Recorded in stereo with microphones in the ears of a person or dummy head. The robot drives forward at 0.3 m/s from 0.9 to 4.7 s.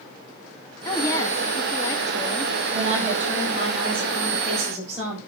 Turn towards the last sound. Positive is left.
turn(degrees=-40)  # may be behind; listen again after turning